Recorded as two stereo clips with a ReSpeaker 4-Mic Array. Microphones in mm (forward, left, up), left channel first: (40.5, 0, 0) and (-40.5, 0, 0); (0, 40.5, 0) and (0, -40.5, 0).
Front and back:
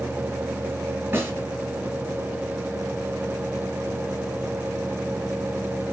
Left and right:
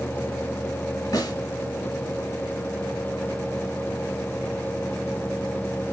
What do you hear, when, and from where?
1.1 s a snare drum: 120° left, 3 m